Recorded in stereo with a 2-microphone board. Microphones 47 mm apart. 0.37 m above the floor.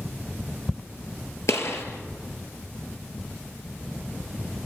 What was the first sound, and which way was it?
A gunshot, 65° left (ahead or behind).